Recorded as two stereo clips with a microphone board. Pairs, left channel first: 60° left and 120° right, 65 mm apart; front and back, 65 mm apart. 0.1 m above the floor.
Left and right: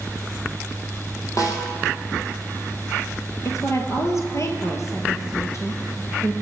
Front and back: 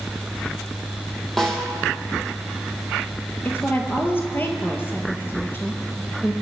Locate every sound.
1.4 s a snare drum: 85° left, 3 m
3.5 s a woman speaking: 45° left, 2.0 m